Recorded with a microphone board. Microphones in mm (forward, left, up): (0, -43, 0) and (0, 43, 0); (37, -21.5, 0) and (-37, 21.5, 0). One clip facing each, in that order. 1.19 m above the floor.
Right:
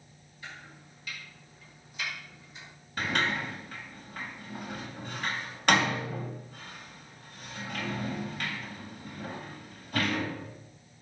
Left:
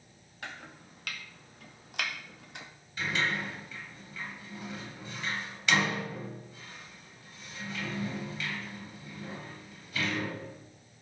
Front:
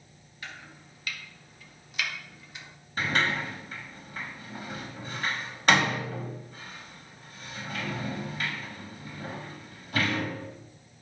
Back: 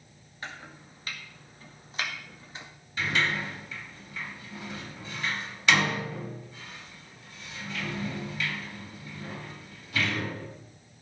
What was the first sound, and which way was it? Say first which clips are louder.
Chopping: left 2 dB, back 3 dB; 95° left.